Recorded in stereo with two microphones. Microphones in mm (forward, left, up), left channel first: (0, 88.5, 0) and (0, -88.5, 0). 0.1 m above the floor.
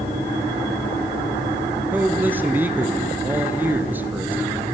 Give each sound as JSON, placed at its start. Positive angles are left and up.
{"t": 1.9, "sound": "a man speaking", "side_deg": -10, "distance_m": 1.6}